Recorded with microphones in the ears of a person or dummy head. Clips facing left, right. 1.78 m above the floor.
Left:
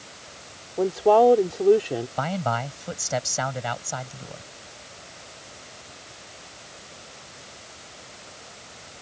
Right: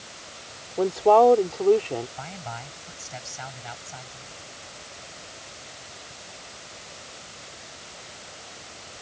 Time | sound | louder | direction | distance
0.8 | a woman speaking | even | 5° left (ahead or behind) | ?
2.2 | a man speaking | left 11 dB | 75° left (ahead or behind) | ?